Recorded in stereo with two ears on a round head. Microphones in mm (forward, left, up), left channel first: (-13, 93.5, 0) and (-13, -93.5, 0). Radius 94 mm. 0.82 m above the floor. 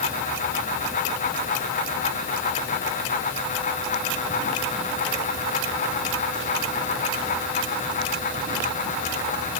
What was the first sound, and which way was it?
Only background noise.